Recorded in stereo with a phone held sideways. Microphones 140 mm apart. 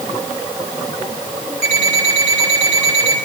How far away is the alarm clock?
About 6 m.